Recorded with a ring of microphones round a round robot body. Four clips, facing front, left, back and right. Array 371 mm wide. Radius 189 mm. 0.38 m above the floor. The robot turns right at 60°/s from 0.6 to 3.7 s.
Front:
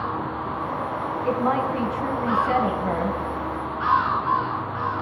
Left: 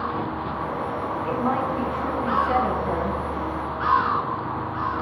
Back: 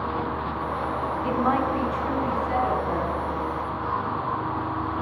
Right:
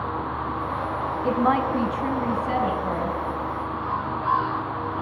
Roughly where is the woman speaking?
Right.